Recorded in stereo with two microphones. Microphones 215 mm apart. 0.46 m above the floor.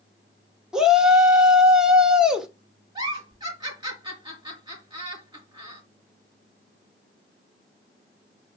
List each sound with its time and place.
0.7 s a shout: 5° right (ahead or behind), 1.5 m
3.0 s a giggle: 20° right (ahead or behind), 5 m